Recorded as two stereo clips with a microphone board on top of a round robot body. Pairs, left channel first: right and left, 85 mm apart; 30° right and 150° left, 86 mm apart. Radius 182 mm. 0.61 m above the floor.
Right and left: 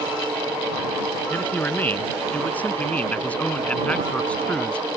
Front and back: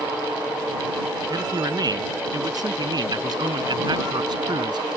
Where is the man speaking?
160° right; by 4.9 s 170° right.